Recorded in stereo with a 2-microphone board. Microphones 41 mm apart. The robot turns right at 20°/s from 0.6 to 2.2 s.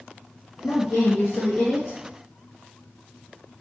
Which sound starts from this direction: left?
A woman speaking, at 0.6 s.